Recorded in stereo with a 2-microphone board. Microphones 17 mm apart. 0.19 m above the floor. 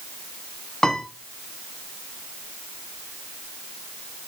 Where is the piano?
35° left (ahead or behind), 1.3 m.